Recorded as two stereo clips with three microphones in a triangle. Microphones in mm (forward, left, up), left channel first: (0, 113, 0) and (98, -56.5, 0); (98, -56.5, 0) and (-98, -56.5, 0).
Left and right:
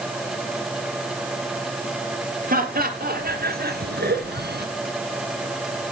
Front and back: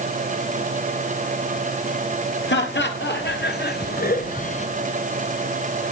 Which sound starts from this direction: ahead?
Laughter, at 2.5 s.